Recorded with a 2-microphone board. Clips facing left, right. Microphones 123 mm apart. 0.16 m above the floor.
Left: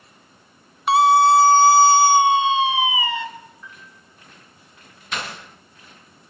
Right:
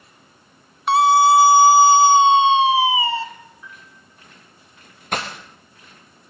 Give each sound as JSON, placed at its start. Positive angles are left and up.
{"t": 0.9, "sound": "a scream", "side_deg": 5, "distance_m": 1.7}
{"t": 3.6, "sound": "a piano", "side_deg": -10, "distance_m": 9.0}
{"t": 5.1, "sound": "breaking glass", "side_deg": -50, "distance_m": 4.0}